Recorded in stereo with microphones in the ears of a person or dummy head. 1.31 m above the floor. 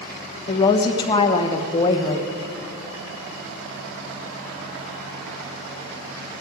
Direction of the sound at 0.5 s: 30° left (ahead or behind).